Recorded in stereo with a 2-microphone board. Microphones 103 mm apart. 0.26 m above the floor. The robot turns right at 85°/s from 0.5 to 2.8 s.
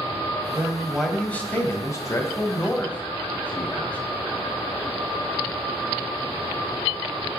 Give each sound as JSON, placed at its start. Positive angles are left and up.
{"t": 0.6, "sound": "a man speaking", "side_deg": -20, "distance_m": 1.1}